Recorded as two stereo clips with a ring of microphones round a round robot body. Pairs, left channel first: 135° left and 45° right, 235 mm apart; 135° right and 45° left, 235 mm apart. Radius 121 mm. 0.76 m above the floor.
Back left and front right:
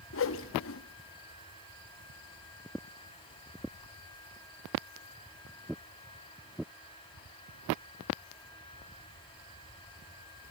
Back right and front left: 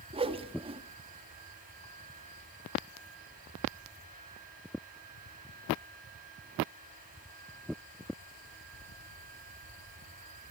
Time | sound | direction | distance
0.1 | a whoosh | 110° left | 1.1 m